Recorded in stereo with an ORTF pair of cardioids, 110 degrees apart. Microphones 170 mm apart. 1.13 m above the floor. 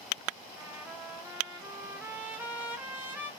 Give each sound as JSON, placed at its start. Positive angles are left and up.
{"t": 0.6, "sound": "a trumpet", "azimuth_deg": -10, "distance_m": 0.7}